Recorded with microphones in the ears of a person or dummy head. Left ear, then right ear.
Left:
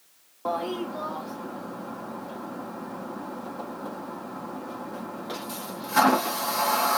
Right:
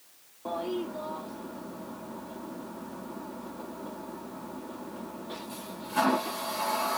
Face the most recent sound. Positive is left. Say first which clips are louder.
# left 4 dB
turn(degrees=65)  # may be behind; listen again after turning